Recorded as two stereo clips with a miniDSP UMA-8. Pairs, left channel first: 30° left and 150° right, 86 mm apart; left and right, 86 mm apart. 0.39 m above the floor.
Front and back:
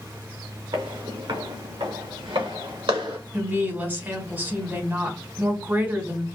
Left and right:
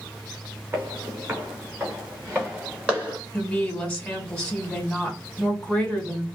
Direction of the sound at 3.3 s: 160° left.